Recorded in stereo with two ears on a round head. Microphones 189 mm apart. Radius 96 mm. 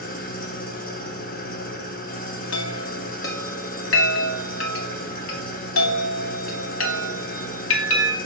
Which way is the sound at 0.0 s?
45° left (ahead or behind).